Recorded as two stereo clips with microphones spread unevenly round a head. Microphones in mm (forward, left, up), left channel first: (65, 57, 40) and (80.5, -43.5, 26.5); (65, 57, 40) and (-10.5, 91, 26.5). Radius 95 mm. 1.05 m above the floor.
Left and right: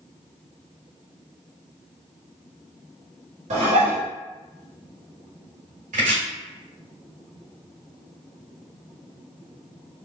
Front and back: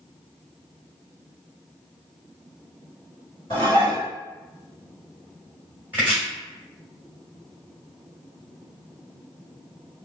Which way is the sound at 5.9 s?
120° right.